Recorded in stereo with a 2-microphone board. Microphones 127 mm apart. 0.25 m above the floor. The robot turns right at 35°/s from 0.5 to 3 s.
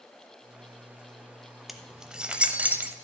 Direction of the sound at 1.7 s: Centre (ahead or behind).